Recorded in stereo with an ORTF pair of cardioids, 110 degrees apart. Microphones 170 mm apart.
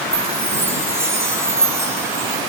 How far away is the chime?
About 3.5 m.